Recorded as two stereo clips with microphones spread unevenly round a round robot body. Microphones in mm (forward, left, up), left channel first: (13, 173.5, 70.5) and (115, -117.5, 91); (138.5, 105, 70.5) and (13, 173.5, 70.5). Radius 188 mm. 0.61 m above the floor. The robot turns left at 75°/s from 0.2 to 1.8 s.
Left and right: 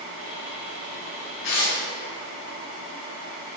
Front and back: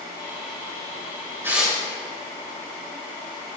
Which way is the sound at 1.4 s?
80° left.